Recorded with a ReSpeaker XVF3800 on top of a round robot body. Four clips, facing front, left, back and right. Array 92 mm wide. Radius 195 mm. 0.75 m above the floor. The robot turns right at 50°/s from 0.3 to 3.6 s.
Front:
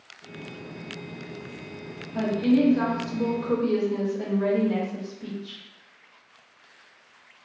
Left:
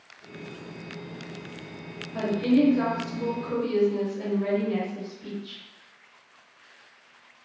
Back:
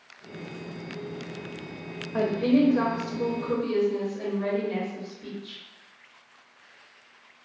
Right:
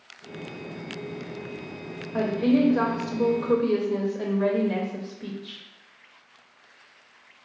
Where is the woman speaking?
145° right, 0.9 m; by 5.6 s 70° right, 0.9 m.